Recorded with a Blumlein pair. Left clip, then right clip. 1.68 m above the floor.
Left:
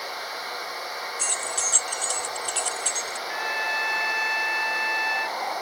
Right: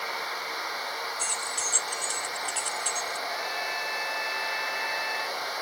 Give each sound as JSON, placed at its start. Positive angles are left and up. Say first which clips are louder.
{"t": 1.2, "sound": "keys jangling", "louder": "left 6 dB", "azimuth_deg": 20}
{"t": 3.3, "sound": "a trumpet", "louder": "left 4 dB", "azimuth_deg": 25}